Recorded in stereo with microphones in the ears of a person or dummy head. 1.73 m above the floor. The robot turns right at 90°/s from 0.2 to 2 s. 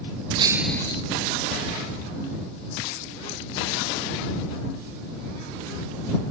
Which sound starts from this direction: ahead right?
Breaking glass, at 0.4 s.